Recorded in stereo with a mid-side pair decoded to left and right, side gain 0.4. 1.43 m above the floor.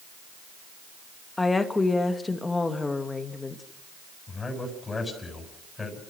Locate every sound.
1.4 s a woman speaking: 25° left, 2.5 m
4.3 s a man speaking: 25° left, 7 m